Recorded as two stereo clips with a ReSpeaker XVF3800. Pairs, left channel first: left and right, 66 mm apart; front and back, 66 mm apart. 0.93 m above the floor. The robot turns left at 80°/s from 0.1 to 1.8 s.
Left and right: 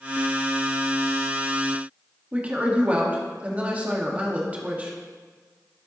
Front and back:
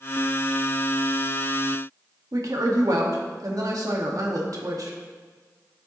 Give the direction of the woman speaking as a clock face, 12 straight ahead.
5 o'clock.